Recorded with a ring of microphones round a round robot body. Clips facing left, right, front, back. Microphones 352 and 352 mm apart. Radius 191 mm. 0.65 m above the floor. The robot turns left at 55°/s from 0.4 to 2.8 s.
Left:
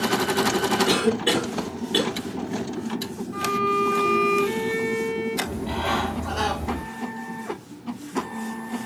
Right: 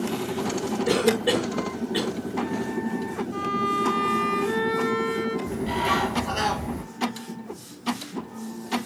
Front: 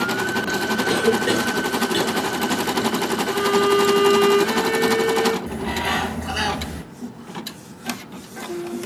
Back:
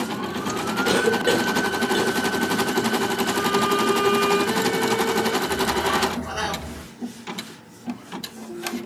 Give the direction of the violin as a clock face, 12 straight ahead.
1 o'clock.